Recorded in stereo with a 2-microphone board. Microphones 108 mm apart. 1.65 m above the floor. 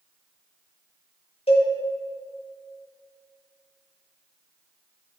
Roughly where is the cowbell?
Left.